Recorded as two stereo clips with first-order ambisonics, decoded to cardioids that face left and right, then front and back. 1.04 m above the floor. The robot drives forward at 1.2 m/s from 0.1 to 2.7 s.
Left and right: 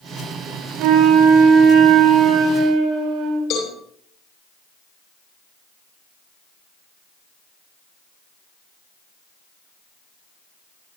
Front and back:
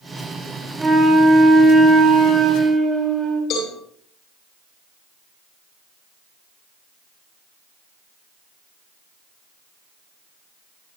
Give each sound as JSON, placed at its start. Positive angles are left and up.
{"t": 0.8, "sound": "a flute", "azimuth_deg": -100, "distance_m": 8.0}
{"t": 3.5, "sound": "a cowbell", "azimuth_deg": 50, "distance_m": 9.0}